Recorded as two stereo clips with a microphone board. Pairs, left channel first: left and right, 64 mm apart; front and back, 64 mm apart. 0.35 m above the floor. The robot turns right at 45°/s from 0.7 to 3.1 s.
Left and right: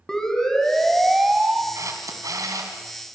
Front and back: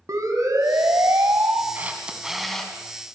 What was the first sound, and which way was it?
A siren, 170° left.